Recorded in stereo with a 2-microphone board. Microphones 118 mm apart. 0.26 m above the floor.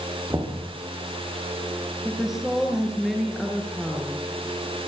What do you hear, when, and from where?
0.3 s knocking: 25° right (ahead or behind), 6.5 m
2.0 s a woman speaking: 5° right (ahead or behind), 4 m